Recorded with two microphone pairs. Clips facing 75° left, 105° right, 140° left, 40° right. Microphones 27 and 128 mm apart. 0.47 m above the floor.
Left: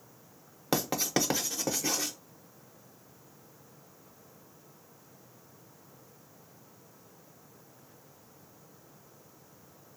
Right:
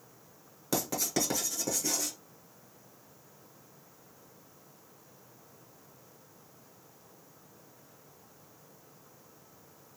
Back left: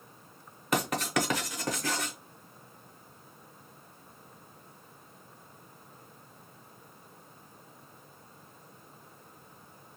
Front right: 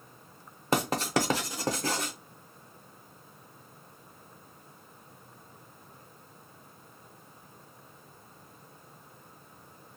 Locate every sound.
0.7 s writing: 20° left, 0.7 m